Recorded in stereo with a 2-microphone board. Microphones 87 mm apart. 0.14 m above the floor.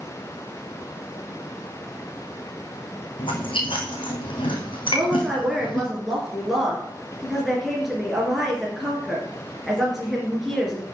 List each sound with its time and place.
3.2 s chewing: 80° left, 2.5 m
4.9 s a woman speaking: centre (ahead or behind), 2.5 m